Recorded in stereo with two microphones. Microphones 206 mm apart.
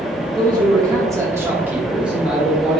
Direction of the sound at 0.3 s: 20° right (ahead or behind).